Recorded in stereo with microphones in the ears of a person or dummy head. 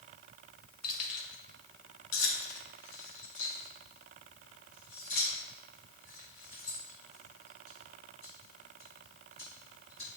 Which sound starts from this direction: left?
Keys jangling, at 0.8 s.